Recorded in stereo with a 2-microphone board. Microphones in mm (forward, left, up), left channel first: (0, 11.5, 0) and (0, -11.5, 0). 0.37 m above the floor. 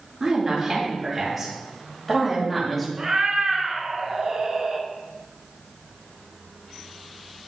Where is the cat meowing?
30° right (ahead or behind), 1.1 m.